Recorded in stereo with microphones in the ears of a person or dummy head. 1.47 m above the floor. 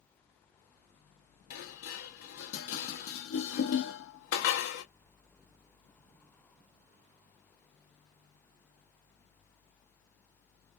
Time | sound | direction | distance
1.5 | dishes clattering | 55° left (ahead or behind) | 0.8 m